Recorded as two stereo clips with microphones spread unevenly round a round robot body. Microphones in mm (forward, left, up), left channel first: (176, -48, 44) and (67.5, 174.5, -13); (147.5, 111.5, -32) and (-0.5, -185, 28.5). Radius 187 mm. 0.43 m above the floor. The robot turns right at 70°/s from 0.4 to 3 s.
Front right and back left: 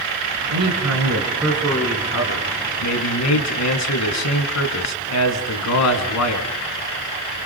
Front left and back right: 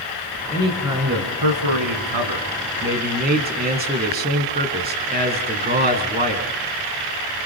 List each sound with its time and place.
0.5 s a man speaking: 135° left, 4 m; by 6.5 s 50° right, 4 m